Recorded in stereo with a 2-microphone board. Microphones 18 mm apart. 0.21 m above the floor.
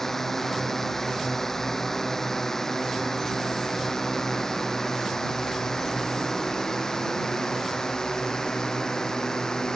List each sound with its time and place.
0.0 s a drone: 20° left (ahead or behind); by 9.8 s 35° left (ahead or behind)